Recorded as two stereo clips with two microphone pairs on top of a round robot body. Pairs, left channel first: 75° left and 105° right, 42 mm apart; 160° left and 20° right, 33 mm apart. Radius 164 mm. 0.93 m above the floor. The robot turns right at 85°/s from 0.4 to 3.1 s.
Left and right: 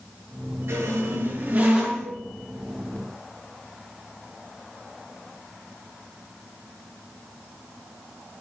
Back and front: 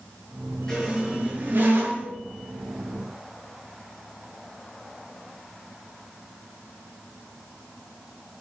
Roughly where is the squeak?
Behind right.